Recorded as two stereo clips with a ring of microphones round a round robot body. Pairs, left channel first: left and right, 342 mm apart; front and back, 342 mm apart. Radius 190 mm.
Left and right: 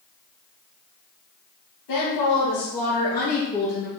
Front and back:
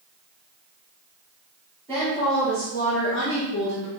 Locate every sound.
1.9 s a woman speaking: 85° left, 1.3 m; by 3.9 s 5° left, 1.1 m